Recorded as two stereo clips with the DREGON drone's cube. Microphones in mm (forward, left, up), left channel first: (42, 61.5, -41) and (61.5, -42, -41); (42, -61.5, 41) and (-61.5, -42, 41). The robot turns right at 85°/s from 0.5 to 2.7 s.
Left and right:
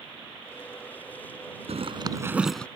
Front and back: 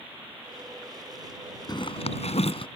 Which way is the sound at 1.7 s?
60° right.